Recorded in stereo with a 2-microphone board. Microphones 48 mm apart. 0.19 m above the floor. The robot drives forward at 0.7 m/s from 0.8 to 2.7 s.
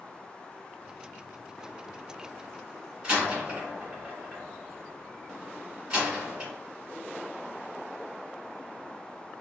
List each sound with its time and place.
3.0 s a door slam: 20° right (ahead or behind), 1.8 m